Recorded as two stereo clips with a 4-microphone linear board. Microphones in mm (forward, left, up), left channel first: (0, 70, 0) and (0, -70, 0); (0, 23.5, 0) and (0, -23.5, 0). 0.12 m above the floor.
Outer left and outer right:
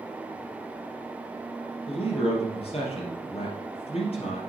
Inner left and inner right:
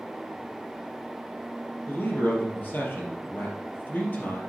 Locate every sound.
1.9 s a man speaking: 45° left (ahead or behind), 2.5 m